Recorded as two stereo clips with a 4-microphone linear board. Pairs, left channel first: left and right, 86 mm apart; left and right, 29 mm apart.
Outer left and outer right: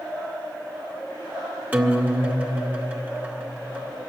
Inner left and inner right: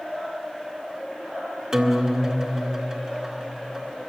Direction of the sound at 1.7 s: 20° right (ahead or behind).